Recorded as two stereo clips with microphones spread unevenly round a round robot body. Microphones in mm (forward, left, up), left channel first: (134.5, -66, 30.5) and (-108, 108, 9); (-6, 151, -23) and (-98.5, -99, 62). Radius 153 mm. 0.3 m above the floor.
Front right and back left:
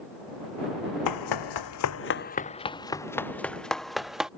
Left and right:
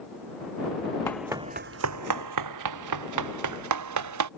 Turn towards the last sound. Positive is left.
turn(degrees=-125)